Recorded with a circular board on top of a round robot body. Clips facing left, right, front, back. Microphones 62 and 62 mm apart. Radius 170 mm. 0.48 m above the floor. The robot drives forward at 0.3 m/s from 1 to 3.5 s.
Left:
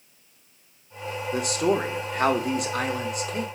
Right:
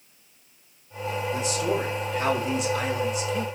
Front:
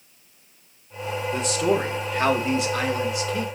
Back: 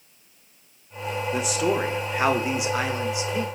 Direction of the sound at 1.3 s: 95° left.